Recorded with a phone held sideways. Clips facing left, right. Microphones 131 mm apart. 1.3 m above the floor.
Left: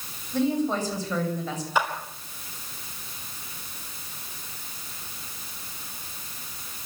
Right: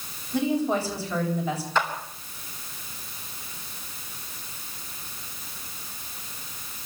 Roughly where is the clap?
Centre.